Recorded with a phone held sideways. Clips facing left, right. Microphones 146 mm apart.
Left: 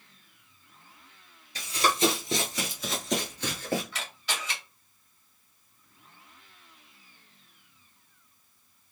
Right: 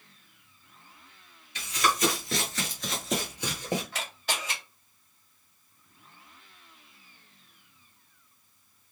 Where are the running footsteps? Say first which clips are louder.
Left 2 dB; 40° left (ahead or behind), 1.6 m; by 3.8 s 20° right (ahead or behind), 1.7 m.